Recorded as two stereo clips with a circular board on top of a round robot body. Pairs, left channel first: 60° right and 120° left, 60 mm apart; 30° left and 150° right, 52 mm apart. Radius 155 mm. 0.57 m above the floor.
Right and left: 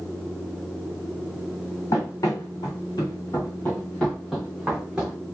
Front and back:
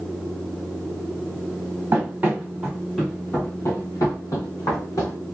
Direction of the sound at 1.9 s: 95° right.